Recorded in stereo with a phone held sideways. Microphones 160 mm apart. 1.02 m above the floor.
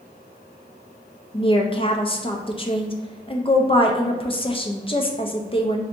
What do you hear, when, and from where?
1.3 s a woman speaking: 35° left (ahead or behind), 0.5 m